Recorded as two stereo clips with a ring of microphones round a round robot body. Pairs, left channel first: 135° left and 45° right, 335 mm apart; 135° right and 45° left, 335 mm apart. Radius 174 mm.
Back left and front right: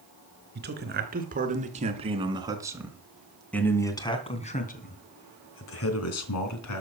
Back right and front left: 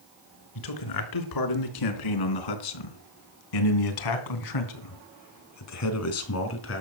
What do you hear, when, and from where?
0.6 s a man speaking: 105° right, 4.5 m; by 6.8 s 170° left, 3.5 m